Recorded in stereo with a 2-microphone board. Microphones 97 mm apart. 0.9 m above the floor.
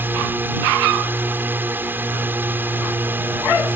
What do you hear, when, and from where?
0.0 s a drone: 20° right (ahead or behind)